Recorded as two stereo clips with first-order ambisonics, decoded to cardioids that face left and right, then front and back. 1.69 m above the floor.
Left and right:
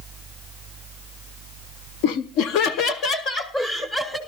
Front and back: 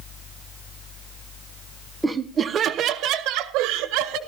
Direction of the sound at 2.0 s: 95° left.